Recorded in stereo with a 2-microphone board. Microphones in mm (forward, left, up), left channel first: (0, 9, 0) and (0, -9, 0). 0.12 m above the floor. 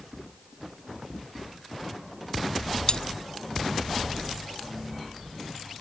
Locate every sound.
2.9 s cutlery clinking: 45° left (ahead or behind)